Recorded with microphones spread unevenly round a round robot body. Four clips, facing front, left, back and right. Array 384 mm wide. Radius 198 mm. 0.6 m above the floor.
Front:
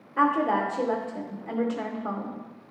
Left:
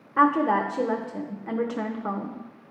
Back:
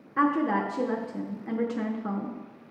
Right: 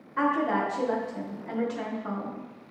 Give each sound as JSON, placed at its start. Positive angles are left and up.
{"t": 0.2, "sound": "a woman speaking", "azimuth_deg": 100, "distance_m": 0.8}